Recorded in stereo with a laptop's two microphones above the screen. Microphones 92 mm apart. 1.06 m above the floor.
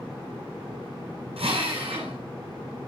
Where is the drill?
85° right, 8.5 m.